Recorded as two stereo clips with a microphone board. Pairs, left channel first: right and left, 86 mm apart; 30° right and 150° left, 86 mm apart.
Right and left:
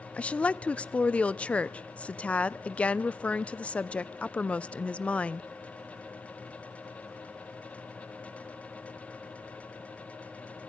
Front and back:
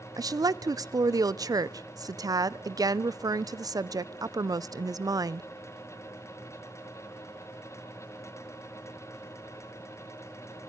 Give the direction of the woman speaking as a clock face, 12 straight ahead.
6 o'clock.